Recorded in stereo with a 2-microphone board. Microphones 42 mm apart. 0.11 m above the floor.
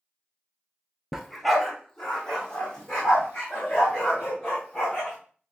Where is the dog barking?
10° right (ahead or behind), 0.5 m; by 5.2 s 20° left (ahead or behind), 3.5 m.